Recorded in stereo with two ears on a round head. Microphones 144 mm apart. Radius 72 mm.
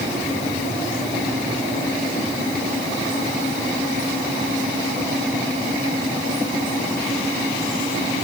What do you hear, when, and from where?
Only background noise.